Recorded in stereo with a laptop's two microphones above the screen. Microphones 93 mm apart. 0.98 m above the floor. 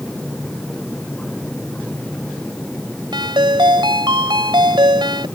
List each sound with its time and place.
0.0 s a machine running: 10° left (ahead or behind)
3.1 s a ringtone: 55° right (ahead or behind)